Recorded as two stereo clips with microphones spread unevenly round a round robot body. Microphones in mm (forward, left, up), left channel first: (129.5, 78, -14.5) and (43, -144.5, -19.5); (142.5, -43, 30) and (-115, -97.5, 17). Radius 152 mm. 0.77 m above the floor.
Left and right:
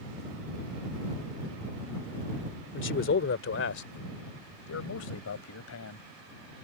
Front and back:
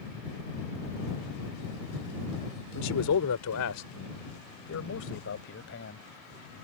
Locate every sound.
2.7 s a man speaking: 35° left; by 6.0 s 65° left